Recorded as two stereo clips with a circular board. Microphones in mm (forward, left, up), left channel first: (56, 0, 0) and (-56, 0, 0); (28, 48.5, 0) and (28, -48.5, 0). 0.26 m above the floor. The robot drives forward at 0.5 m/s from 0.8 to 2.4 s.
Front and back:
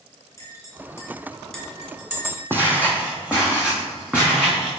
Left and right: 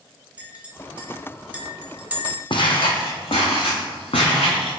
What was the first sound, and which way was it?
A clink, 30° right.